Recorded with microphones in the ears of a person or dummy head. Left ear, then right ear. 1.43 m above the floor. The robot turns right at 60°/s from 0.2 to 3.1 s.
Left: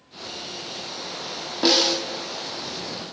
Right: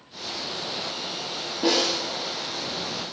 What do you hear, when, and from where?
1.6 s a snare drum: 35° left (ahead or behind), 1.7 m; by 2.0 s 55° left (ahead or behind), 1.7 m